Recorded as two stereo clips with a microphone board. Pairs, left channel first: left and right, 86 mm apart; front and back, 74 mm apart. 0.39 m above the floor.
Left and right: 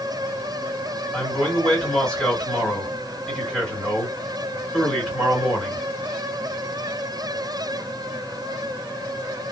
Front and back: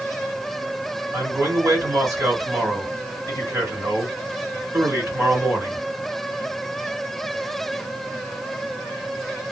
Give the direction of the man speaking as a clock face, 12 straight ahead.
6 o'clock.